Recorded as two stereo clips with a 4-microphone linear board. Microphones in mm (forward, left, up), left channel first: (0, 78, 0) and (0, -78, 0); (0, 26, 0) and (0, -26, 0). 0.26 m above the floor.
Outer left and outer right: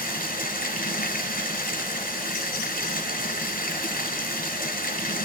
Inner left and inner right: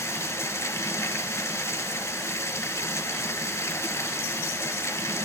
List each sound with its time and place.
0.0 s running water: 70° left (ahead or behind), 2.5 m